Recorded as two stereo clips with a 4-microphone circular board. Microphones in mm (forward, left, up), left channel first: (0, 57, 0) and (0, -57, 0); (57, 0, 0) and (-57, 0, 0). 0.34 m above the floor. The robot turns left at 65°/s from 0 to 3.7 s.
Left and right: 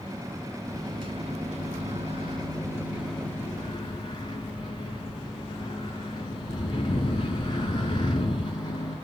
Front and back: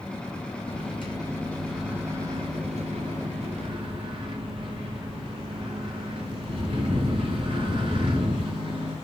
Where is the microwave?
20° right, 3.5 m; by 9.0 s 140° left, 3.5 m.